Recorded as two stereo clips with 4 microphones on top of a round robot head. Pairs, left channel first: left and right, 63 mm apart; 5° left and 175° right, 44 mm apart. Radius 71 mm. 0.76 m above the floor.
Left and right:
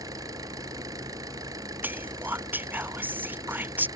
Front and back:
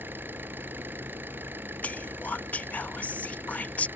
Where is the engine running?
125° right.